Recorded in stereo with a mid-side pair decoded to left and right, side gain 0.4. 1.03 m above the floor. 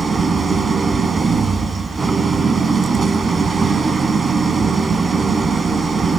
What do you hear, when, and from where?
0.0 s an engine running: 35° right, 2.5 m